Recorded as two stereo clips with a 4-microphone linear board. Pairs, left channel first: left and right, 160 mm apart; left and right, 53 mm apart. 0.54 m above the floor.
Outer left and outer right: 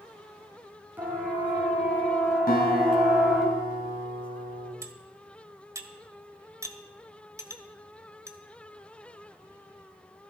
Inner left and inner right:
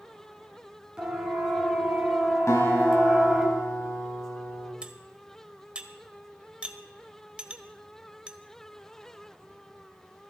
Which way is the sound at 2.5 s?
75° left (ahead or behind).